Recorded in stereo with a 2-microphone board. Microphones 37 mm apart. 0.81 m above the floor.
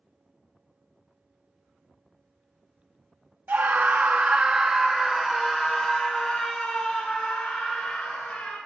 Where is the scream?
55° right (ahead or behind), 1.1 m; by 8.6 s 30° left (ahead or behind), 3 m.